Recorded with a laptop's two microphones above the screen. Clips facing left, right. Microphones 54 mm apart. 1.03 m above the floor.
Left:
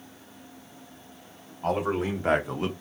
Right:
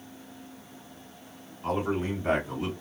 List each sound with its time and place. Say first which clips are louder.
1.6 s a man speaking: left 2 dB; 70° left (ahead or behind), 1.7 m; by 2.7 s 50° left (ahead or behind), 0.8 m